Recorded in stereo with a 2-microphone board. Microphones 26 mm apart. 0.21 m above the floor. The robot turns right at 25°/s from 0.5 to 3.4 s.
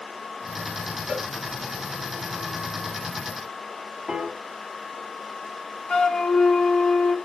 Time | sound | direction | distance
1.1 | a cowbell | 45° right (ahead or behind) | 3.5 m
4.1 | a piano | 30° right (ahead or behind) | 1.2 m
5.9 | a flute | 20° left (ahead or behind) | 1.5 m